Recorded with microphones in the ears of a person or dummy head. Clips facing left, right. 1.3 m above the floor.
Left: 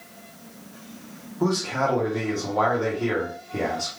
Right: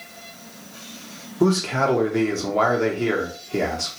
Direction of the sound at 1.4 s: 45° right (ahead or behind).